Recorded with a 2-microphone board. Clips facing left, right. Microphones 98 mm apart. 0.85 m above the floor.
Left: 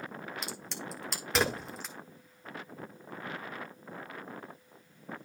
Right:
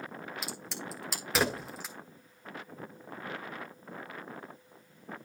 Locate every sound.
0.4 s a crack: 5° right (ahead or behind), 1.7 m